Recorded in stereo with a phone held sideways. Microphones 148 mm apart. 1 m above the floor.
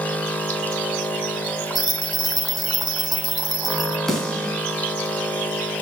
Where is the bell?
30° right (ahead or behind), 0.9 m.